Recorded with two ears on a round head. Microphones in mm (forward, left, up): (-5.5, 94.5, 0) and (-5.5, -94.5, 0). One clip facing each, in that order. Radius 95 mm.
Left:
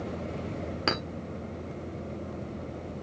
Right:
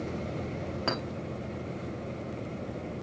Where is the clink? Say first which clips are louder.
Left 1 dB; 30° left (ahead or behind), 1.4 m.